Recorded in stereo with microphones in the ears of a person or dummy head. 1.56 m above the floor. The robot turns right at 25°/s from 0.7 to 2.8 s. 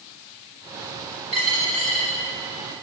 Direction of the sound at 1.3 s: Centre (ahead or behind).